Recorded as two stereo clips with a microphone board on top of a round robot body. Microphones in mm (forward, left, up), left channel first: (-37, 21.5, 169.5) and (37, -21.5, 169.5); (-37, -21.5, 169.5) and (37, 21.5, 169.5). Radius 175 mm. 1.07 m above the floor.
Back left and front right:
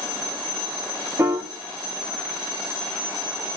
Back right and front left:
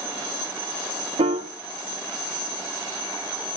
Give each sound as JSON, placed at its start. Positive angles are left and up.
{"t": 1.2, "sound": "a piano", "azimuth_deg": 35, "distance_m": 0.7}